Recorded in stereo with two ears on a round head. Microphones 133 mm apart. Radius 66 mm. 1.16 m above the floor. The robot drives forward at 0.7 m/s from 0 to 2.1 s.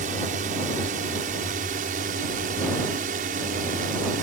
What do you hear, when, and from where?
0.0 s a drone: 55° right (ahead or behind); by 4.2 s 60° right (ahead or behind)